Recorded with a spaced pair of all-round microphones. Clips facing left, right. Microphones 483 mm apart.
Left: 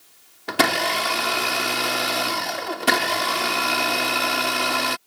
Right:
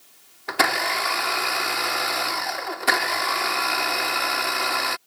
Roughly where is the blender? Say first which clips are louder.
Left 4 dB; left.